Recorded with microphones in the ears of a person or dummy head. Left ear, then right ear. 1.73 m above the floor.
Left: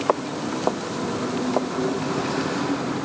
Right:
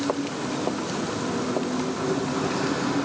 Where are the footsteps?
75° left (ahead or behind); by 2.0 s 65° left (ahead or behind).